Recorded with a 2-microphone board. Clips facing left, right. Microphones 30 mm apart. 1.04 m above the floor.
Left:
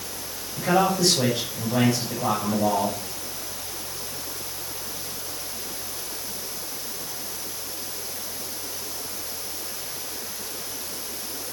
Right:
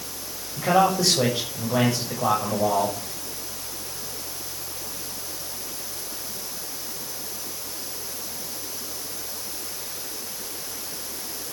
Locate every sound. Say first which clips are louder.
0.6 s a man speaking: right 1 dB; 20° right (ahead or behind), 6.5 m